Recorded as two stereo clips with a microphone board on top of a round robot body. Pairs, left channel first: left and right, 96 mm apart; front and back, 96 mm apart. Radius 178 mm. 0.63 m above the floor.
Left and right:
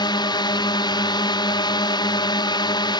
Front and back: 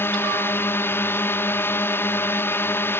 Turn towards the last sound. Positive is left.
turn(degrees=60)